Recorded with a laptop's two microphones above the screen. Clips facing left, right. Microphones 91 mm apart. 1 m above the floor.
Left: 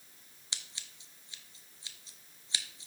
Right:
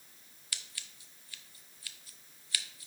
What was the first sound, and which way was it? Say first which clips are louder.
Scissors: right 1 dB; 25° left (ahead or behind).